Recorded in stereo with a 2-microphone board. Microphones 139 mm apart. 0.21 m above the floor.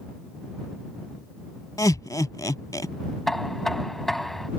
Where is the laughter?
25° left (ahead or behind).